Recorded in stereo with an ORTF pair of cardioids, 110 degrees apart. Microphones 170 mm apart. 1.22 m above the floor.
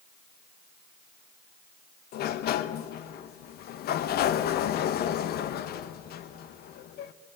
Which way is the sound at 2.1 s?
65° left.